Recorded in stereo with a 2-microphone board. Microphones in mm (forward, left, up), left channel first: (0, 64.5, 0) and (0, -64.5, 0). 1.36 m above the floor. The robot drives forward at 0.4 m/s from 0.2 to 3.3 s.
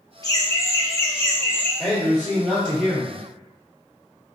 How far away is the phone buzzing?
No phone buzzing in this recording.